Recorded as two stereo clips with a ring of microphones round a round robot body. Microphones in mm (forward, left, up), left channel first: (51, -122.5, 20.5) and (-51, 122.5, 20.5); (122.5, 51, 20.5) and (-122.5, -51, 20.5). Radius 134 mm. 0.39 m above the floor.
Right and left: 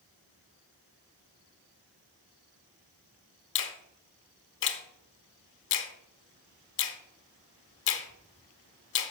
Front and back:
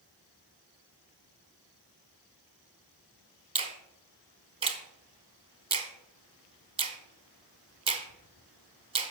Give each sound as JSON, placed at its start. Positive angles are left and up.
{"t": 3.5, "sound": "a finger snap", "azimuth_deg": -90, "distance_m": 0.9}